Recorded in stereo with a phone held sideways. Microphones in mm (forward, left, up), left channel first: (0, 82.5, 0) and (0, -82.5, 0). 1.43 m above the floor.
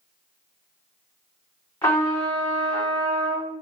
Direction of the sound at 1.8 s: 20° left (ahead or behind).